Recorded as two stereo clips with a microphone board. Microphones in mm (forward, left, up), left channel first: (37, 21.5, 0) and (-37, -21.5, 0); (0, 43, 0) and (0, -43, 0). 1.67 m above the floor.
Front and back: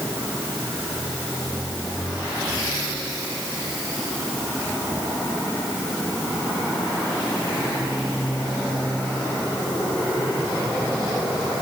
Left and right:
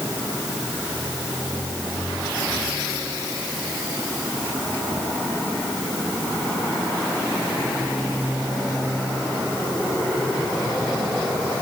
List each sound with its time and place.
Only background noise.